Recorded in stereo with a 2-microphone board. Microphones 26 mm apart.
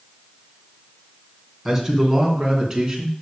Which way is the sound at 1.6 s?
5° right (ahead or behind).